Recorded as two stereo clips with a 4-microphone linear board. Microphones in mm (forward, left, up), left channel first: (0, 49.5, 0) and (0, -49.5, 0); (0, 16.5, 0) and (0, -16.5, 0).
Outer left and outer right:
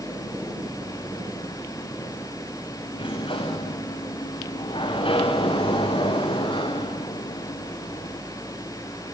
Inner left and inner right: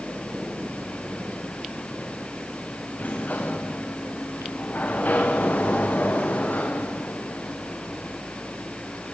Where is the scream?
I don't hear a scream.